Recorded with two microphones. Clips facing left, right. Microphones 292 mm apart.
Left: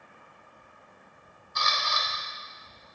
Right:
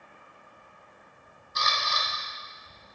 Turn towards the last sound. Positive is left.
turn(degrees=-40)  # may be behind; listen again after turning